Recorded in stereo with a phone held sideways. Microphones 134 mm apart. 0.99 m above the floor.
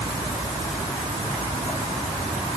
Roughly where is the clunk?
I don't hear a clunk.